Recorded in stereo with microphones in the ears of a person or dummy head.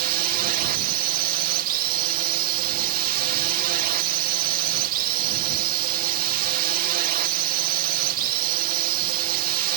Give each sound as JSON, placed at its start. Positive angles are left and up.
{"t": 0.0, "sound": "a drone", "side_deg": -50}